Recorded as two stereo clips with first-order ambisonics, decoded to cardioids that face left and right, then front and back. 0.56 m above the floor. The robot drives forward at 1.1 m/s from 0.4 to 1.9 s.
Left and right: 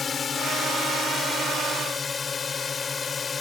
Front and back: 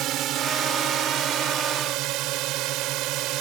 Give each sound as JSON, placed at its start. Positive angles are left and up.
{"t": 0.0, "sound": "a drone", "azimuth_deg": 155}